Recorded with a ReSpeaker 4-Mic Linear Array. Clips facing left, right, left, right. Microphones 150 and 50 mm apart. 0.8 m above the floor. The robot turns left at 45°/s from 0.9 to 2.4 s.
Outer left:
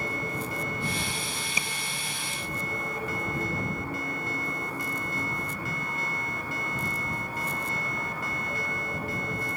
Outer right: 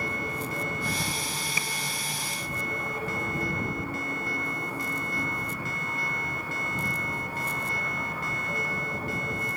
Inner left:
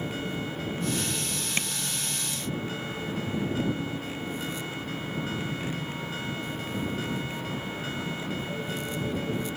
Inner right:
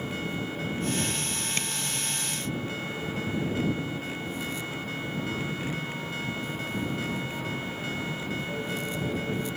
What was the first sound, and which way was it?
Tapping, 20° left (ahead or behind).